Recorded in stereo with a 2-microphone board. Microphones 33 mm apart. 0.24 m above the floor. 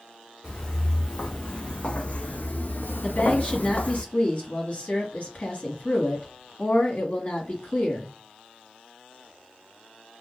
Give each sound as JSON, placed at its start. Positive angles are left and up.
{"t": 0.4, "sound": "footsteps", "side_deg": 25, "distance_m": 1.6}
{"t": 3.0, "sound": "a woman speaking", "side_deg": 45, "distance_m": 1.8}